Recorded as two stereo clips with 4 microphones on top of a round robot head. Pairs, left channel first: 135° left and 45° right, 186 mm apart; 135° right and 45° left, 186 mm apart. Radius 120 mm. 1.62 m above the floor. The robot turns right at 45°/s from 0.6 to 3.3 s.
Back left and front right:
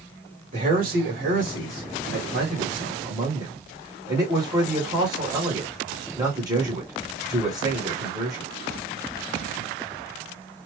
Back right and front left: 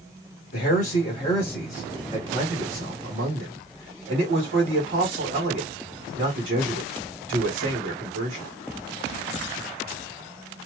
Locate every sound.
0.5 s a man speaking: 100° right, 1.5 m; by 8.5 s 20° left, 1.5 m